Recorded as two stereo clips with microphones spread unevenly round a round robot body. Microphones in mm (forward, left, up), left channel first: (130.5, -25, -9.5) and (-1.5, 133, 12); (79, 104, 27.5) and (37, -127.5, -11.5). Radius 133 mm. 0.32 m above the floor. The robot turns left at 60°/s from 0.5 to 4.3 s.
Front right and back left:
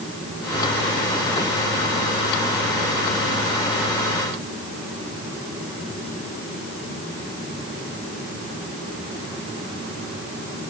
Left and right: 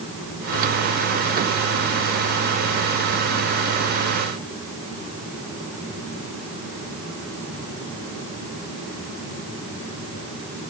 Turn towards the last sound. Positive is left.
No sound to turn to.